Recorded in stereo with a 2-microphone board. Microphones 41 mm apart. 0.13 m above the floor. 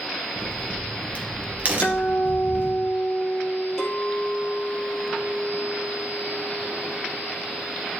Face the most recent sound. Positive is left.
turn(degrees=10)  # may be behind; listen again after turning